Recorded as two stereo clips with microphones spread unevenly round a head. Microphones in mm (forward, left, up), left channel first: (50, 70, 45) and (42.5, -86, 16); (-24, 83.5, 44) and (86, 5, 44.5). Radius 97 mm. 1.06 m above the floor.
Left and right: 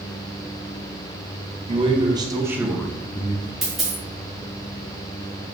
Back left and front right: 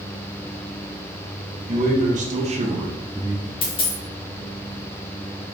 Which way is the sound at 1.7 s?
50° right.